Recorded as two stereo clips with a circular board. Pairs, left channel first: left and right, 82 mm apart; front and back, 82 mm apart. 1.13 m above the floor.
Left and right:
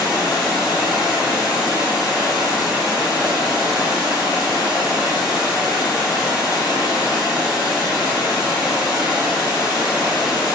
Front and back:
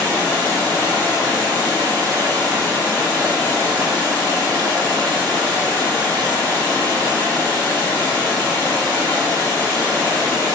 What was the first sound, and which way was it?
Running water, 75° left.